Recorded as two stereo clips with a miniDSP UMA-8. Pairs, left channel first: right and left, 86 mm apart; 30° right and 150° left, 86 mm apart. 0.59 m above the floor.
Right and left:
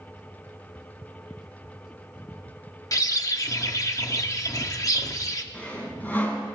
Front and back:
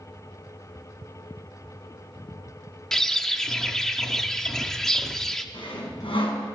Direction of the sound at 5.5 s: 20° right.